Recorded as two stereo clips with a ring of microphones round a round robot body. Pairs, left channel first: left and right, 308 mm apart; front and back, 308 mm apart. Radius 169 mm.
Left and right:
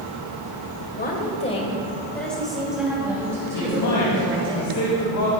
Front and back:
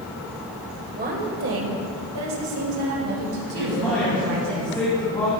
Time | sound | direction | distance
0.9 | a woman speaking | 130° left | 1.2 m
3.5 | a man speaking | 75° left | 2.5 m